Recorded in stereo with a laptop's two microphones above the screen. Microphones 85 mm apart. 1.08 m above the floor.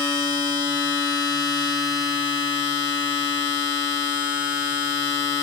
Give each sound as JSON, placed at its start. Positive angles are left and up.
{"t": 0.0, "sound": "a machine running", "side_deg": 60, "distance_m": 1.6}